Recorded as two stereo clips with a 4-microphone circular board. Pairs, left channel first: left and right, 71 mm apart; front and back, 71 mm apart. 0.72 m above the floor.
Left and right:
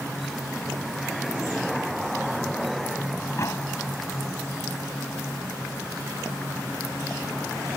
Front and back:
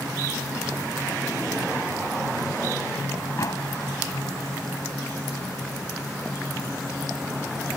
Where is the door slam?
40° left.